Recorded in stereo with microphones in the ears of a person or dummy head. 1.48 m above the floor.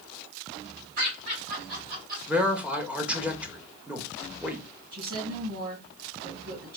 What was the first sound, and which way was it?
Laughter, 60° right (ahead or behind).